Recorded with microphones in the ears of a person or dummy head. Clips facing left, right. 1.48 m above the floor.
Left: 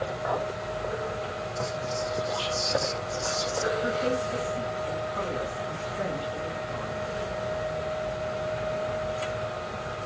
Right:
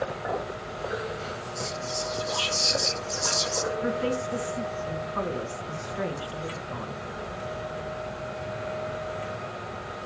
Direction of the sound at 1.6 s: 80° right.